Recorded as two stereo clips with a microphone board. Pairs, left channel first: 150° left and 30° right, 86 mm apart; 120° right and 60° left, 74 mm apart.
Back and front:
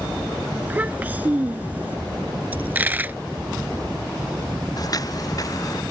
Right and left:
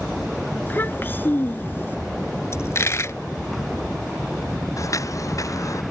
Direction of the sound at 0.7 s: 85° right.